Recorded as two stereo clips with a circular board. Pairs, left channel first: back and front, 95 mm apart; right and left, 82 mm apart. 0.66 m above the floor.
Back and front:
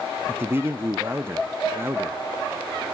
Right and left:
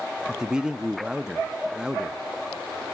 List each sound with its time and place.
0.3 s a man speaking: 20° left, 0.7 m